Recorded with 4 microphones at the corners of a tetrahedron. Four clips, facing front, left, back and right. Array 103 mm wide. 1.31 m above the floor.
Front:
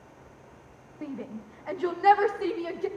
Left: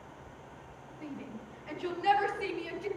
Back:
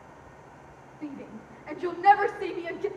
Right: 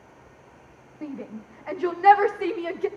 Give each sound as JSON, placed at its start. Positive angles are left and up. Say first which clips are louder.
{"t": 1.0, "sound": "a shout", "louder": "right 8 dB, front 2 dB", "azimuth_deg": -50, "distance_m": 1.9}